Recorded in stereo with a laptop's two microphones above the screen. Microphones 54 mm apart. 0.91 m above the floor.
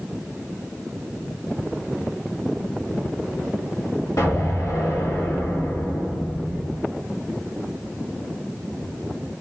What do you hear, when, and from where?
4.2 s an explosion: 75° left (ahead or behind), 1.4 m